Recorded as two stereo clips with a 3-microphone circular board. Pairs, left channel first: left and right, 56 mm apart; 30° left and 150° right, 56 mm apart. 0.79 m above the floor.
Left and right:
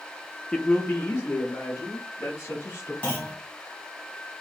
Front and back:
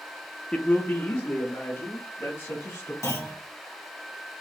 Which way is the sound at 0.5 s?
30° left.